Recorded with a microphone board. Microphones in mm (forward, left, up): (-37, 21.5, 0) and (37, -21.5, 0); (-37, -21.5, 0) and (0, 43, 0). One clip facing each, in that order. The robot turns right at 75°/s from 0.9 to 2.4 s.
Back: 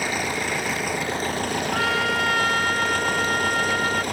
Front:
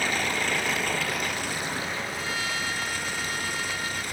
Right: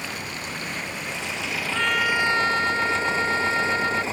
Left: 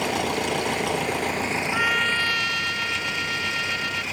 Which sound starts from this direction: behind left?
A trumpet, at 1.7 s.